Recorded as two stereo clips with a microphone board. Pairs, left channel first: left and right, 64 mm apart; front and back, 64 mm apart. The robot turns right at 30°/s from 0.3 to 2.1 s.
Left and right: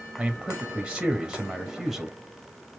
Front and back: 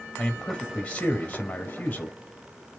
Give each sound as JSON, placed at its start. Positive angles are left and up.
{"t": 0.2, "sound": "a man speaking", "azimuth_deg": -55, "distance_m": 1.0}